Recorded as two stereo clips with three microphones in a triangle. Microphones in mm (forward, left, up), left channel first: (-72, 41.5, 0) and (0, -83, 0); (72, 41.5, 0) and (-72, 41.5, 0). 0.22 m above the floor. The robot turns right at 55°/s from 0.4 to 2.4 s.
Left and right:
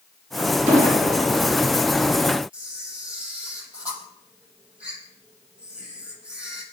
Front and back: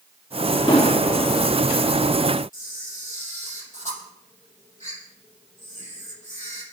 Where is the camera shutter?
20° left, 5.5 m.